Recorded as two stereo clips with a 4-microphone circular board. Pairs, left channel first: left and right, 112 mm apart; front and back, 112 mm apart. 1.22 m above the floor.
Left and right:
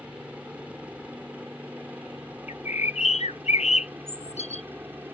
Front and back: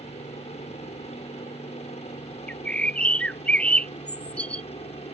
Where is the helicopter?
10° right; by 5.1 s 15° right.